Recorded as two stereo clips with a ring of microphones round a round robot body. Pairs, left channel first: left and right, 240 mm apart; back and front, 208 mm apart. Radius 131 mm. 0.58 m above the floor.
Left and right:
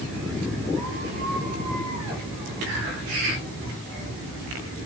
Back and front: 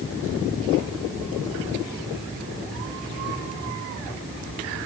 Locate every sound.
Only background noise.